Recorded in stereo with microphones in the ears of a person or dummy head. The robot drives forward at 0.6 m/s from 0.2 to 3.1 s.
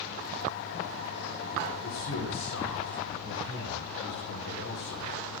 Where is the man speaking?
80° left, 4.5 m; by 5.2 s 75° left (ahead or behind), 4.5 m.